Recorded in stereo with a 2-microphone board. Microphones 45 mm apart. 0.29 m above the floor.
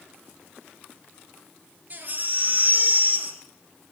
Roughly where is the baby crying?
Right.